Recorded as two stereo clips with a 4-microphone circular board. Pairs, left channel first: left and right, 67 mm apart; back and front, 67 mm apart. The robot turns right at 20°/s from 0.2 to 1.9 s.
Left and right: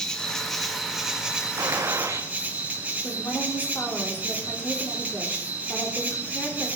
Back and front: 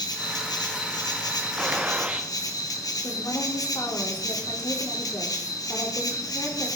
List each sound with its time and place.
0.0 s an insect: 170° left, 1.7 m; by 6.8 s 160° right, 1.7 m
1.6 s a gunshot: 75° right, 1.3 m; by 2.3 s 70° right, 1.3 m
3.0 s a woman speaking: 150° left, 3.5 m